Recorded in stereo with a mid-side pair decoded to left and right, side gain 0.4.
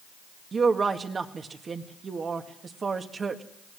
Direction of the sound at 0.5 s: 45° right.